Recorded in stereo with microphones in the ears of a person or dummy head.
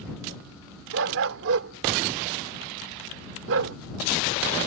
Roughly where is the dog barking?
Right.